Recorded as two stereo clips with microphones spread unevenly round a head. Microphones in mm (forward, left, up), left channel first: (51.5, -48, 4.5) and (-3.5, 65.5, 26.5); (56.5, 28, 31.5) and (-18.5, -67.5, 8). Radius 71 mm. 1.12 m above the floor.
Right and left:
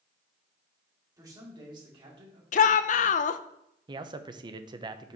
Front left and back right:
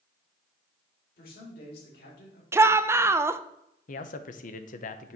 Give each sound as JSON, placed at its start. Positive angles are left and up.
{"t": 1.2, "sound": "a man speaking", "azimuth_deg": 50, "distance_m": 2.5}
{"t": 2.5, "sound": "a shout", "azimuth_deg": -65, "distance_m": 0.5}
{"t": 3.9, "sound": "a man speaking", "azimuth_deg": 60, "distance_m": 0.7}